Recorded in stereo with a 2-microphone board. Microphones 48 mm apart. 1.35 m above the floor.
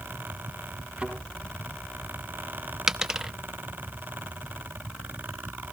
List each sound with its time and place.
1.0 s a thud: 20° right (ahead or behind), 4.5 m
2.9 s a dropped coin: 10° right (ahead or behind), 0.6 m